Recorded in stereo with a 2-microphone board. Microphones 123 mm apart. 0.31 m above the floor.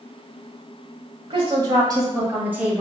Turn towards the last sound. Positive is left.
turn(degrees=-10)  # may be behind; listen again after turning